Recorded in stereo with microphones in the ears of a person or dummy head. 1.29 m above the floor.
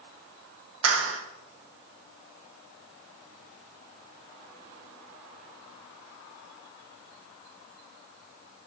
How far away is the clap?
About 1.1 m.